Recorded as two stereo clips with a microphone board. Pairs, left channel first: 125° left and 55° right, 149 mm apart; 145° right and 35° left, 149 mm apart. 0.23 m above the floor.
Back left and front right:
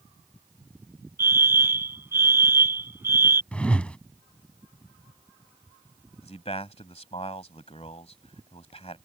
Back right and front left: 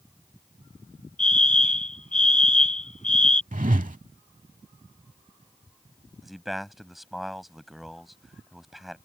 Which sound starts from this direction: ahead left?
A whoosh, at 3.5 s.